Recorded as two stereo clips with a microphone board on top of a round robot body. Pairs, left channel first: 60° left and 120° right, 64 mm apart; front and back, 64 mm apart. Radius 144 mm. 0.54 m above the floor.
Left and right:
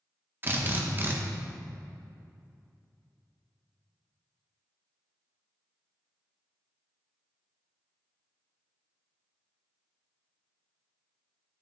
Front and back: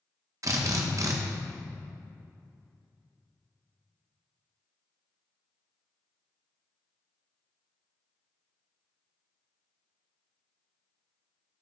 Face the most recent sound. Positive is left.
turn(degrees=-170)